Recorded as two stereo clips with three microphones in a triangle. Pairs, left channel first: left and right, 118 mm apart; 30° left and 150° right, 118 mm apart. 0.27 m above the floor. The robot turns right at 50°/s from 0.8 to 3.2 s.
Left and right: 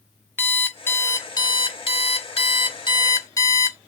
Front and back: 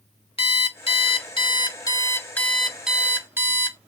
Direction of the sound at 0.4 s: 25° left.